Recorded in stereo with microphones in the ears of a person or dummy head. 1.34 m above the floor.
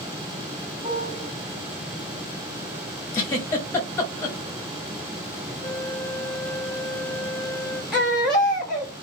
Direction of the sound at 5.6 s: 10° left (ahead or behind).